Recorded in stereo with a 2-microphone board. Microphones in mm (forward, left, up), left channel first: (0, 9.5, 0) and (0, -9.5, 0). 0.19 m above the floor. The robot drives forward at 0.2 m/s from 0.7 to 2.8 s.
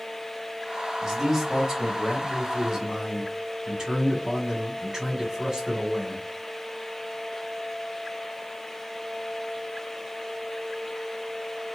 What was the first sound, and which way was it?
A man speaking, 20° right (ahead or behind).